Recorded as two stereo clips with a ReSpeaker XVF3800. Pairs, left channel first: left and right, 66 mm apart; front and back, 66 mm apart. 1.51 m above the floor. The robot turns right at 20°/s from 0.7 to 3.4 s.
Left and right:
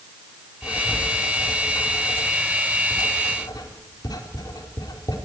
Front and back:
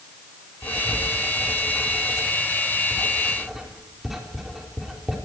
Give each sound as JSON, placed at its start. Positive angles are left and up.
{"t": 0.6, "sound": "writing", "azimuth_deg": 40, "distance_m": 4.5}